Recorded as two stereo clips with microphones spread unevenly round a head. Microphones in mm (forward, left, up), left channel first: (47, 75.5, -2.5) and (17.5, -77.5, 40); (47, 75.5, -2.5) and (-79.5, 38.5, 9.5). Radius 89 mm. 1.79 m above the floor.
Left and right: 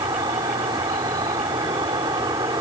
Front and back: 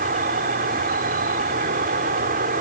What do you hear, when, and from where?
0.0 s an insect: 170° right